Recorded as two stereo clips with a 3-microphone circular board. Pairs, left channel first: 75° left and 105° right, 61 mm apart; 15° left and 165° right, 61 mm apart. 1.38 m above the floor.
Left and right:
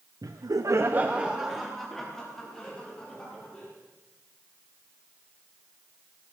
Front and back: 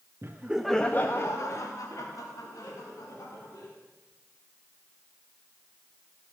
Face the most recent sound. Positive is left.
turn(degrees=0)